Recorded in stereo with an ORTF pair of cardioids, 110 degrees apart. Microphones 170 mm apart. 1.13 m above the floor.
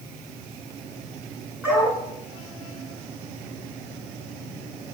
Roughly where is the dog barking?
Ahead.